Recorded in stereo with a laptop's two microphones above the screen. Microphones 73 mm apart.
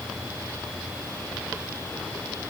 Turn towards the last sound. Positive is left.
No sound to turn to.